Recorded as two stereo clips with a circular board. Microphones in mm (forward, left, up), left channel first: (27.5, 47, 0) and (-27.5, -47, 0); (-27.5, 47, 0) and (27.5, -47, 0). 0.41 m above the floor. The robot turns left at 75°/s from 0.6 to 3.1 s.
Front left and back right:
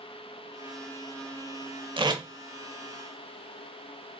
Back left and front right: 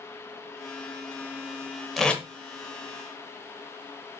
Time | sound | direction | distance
2.0 | tape being pulled | 150° right | 0.6 m